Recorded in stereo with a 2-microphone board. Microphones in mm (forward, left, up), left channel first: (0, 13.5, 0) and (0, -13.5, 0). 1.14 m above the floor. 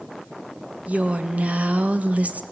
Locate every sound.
0.9 s a woman speaking: 60° right (ahead or behind), 1.5 m